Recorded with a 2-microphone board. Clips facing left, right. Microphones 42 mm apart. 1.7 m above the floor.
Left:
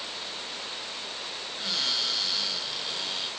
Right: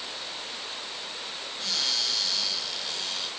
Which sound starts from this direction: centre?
A cupboard door, at 1.6 s.